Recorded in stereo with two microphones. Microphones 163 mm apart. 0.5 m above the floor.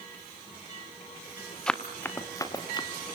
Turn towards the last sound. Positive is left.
turn(degrees=30)  # may be behind; listen again after turning